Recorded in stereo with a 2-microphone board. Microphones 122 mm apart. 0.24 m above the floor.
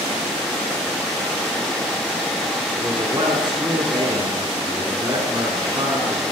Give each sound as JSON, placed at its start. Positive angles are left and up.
{"t": 2.8, "sound": "a man speaking", "side_deg": -30, "distance_m": 2.5}